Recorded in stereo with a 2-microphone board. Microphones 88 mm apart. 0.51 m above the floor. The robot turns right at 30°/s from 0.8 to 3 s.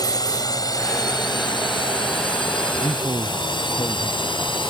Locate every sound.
0.0 s a drone: 45° left (ahead or behind); by 4.7 s 65° left (ahead or behind)
2.8 s a man speaking: 45° left (ahead or behind); by 4.4 s 40° left (ahead or behind)